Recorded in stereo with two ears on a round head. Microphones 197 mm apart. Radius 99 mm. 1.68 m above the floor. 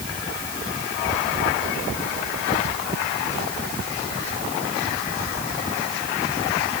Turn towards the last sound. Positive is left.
No sound to turn to.